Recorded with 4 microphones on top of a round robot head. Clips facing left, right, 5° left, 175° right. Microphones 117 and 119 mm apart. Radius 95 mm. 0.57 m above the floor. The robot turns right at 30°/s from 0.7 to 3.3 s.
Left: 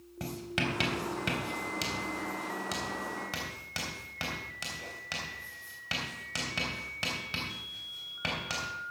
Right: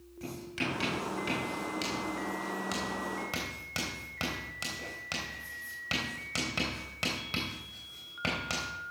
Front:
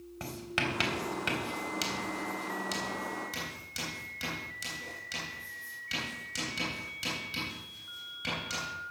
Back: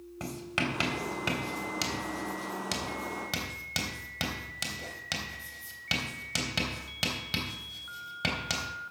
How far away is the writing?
About 3 m.